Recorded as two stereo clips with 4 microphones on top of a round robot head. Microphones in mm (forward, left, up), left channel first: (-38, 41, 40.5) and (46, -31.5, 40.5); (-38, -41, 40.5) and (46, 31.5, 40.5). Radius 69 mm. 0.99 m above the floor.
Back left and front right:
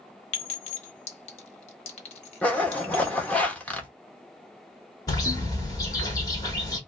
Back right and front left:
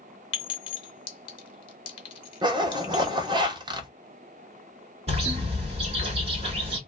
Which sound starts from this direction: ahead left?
A zipper, at 2.4 s.